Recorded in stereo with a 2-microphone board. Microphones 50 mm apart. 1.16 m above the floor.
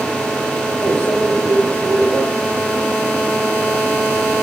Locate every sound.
0.8 s a microwave: 40° left (ahead or behind), 1.3 m